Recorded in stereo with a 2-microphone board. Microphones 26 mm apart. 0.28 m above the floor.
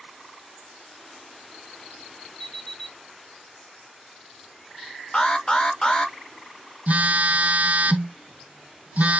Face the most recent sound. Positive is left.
turn(degrees=-60)  # may be behind; listen again after turning